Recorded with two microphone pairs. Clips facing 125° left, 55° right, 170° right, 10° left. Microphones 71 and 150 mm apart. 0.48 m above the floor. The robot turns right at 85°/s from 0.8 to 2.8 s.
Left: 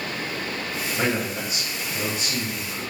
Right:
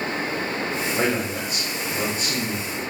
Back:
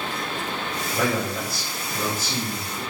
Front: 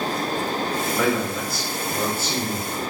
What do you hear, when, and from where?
0.9 s a man speaking: 130° right, 2 m; by 2.9 s 30° left, 2 m